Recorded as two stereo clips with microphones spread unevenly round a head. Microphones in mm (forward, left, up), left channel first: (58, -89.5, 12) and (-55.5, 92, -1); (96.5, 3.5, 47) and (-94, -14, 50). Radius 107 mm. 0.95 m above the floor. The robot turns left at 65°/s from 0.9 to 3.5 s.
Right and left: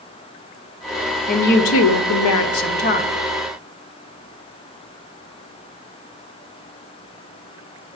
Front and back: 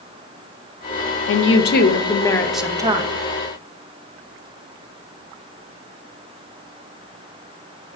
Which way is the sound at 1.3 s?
Straight ahead.